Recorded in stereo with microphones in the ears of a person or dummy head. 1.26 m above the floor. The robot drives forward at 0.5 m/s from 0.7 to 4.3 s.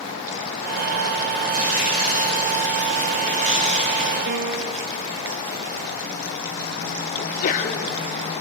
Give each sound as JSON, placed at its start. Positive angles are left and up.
{"t": 1.5, "sound": "tearing paper", "side_deg": -40, "distance_m": 4.5}
{"t": 4.3, "sound": "a piano", "side_deg": -55, "distance_m": 1.2}
{"t": 7.2, "sound": "a sneeze", "side_deg": 45, "distance_m": 4.0}